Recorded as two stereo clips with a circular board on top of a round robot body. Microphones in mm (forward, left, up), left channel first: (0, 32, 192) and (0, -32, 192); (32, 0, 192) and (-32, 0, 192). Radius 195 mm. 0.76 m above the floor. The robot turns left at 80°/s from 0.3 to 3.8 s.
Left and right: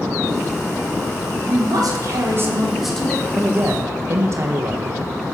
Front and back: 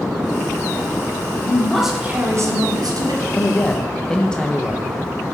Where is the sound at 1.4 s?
60° right, 2.5 m; by 3.2 s 155° left, 2.5 m.